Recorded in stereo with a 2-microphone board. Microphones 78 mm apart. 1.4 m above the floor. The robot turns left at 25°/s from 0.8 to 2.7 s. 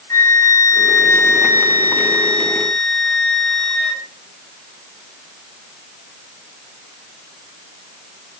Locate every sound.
0.1 s a flute: 50° left, 0.9 m; by 4.0 s straight ahead, 0.9 m